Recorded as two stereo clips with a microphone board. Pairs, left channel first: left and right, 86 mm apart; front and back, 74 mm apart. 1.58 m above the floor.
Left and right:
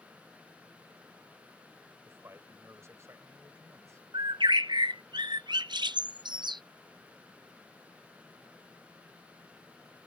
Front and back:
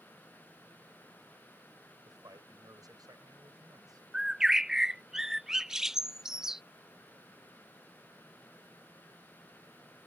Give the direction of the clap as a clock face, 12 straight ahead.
I don't hear a clap.